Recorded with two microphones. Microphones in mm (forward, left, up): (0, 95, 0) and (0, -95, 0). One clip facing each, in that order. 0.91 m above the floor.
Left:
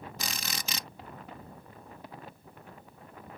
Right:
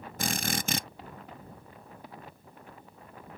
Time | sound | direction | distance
0.2 | a drill | 55° right (ahead or behind) | ?